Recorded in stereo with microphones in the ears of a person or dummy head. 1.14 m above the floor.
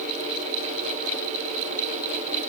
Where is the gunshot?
No gunshot in this recording.